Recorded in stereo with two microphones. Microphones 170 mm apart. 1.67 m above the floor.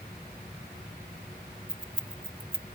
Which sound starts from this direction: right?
Keys jangling, at 1.7 s.